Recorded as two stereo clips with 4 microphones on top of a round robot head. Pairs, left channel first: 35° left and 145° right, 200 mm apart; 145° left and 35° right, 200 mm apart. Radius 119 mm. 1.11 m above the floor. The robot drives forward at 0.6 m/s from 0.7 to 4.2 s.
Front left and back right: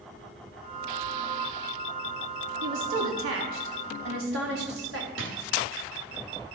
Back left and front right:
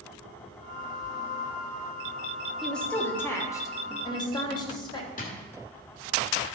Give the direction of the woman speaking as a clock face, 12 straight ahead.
4 o'clock.